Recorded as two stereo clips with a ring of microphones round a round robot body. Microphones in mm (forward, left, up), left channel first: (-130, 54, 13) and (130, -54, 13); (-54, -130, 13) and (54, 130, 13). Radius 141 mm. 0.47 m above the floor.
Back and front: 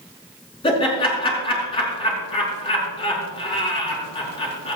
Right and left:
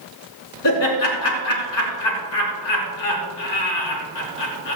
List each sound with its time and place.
0.6 s laughter: 130° right, 4.5 m